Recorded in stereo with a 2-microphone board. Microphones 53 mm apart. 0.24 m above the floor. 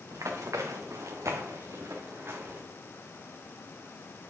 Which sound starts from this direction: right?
Running footsteps, at 0.1 s.